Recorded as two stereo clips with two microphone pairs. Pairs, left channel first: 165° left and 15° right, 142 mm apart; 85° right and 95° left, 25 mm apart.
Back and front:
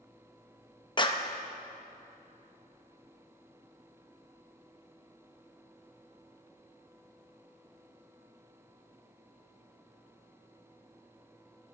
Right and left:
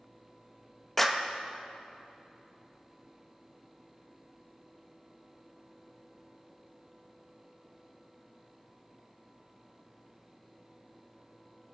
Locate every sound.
1.0 s a clap: 155° right, 0.7 m